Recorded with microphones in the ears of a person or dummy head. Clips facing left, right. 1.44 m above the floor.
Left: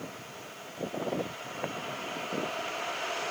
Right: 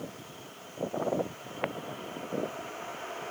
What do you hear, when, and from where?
Only background noise.